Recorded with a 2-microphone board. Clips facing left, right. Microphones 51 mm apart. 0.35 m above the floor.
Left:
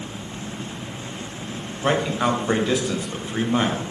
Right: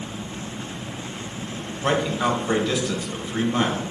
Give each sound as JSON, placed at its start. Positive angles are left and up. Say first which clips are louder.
{"t": 1.8, "sound": "a man speaking", "louder": "left 1 dB", "side_deg": 15, "distance_m": 1.4}